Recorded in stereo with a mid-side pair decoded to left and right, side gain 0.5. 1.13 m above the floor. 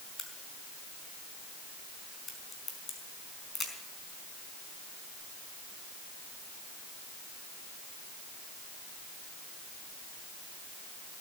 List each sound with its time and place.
0.2 s a crack: 30° left, 4.5 m